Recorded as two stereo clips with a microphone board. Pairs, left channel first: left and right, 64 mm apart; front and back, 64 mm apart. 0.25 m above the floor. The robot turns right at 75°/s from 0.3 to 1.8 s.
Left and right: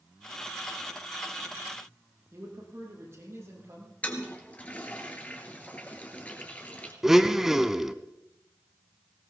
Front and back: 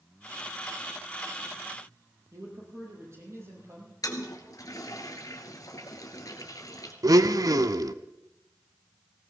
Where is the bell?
No bell in this recording.